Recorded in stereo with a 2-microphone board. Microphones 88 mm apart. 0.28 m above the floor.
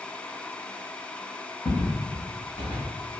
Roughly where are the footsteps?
Left.